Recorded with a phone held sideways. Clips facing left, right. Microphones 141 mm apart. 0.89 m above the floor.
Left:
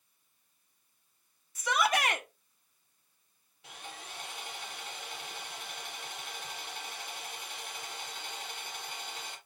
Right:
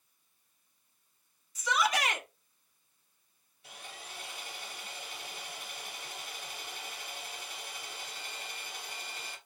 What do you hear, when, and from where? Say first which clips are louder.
1.6 s a shout: left 1 dB; 55° left (ahead or behind), 1.3 m
3.6 s sawing: left 2 dB; 80° left, 2.5 m